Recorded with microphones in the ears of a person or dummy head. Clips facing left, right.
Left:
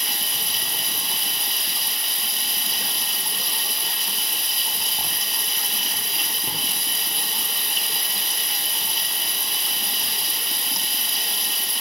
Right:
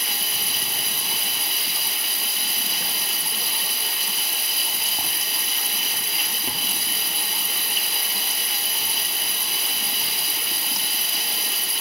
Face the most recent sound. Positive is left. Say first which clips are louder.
# right 1 dB
turn(degrees=-5)  # may be behind; listen again after turning